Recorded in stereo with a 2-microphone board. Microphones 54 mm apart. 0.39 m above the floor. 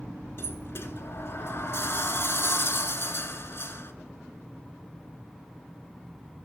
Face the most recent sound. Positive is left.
turn(degrees=50)  # may be behind; listen again after turning